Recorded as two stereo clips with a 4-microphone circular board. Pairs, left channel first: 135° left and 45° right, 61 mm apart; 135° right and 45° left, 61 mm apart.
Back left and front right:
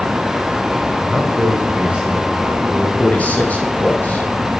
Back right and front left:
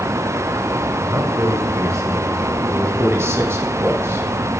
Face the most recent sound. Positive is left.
turn(degrees=75)